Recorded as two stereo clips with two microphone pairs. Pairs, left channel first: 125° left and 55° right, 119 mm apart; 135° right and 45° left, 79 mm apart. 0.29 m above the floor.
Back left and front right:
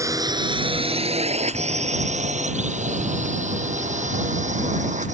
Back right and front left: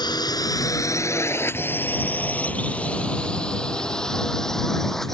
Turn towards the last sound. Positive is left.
turn(degrees=-50)